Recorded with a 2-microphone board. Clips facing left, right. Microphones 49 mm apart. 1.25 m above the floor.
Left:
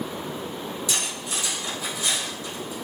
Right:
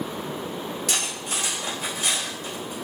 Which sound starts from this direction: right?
Cutlery clinking, at 0.9 s.